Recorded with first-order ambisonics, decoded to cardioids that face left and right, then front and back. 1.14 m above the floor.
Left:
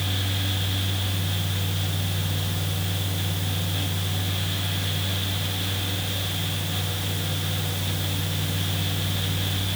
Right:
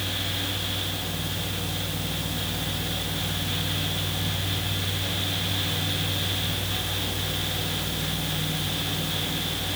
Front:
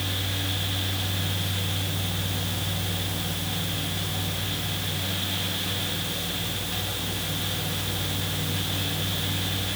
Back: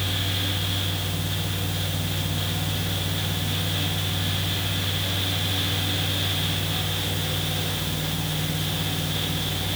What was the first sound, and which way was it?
Only background noise.